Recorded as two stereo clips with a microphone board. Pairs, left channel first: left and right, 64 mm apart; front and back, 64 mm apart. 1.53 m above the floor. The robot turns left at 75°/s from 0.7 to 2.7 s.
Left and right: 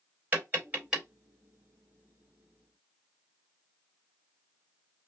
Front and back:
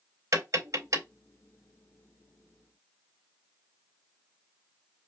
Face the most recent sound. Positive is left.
turn(degrees=60)